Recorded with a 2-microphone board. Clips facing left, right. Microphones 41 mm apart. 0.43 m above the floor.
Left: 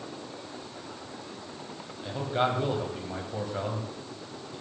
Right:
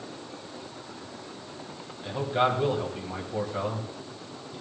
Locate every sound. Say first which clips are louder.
2.0 s a man speaking: right 2 dB; 5° right (ahead or behind), 3 m